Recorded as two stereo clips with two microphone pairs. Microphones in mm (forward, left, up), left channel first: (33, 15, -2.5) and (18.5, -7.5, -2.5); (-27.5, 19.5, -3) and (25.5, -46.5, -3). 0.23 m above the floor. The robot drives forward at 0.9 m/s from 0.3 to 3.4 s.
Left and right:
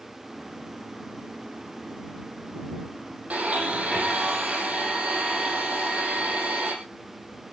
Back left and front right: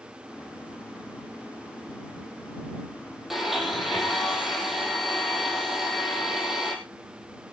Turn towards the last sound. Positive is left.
turn(degrees=-140)